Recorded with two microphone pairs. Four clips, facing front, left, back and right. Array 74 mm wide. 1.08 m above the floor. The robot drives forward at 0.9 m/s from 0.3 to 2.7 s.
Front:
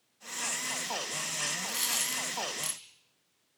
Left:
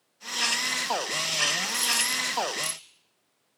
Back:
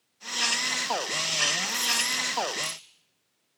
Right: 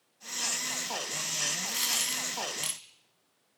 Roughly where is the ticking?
I don't hear ticking.